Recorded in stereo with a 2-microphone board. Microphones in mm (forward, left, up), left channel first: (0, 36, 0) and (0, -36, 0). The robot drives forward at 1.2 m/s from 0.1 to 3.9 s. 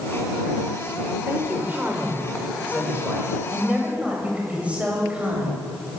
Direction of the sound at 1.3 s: 30° right (ahead or behind).